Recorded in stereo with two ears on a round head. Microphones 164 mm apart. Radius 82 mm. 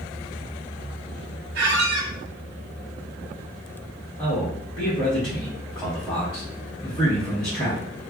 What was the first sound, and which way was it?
A squeak, 60° right (ahead or behind).